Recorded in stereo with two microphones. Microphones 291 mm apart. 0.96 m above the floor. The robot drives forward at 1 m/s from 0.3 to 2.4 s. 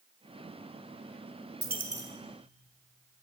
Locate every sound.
1.6 s a dropped coin: 35° right (ahead or behind), 0.6 m; by 2.1 s 20° right (ahead or behind), 1.0 m